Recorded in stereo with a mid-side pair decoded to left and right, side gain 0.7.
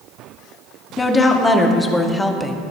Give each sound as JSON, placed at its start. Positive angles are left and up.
{"t": 1.0, "sound": "a woman speaking", "azimuth_deg": 20, "distance_m": 2.5}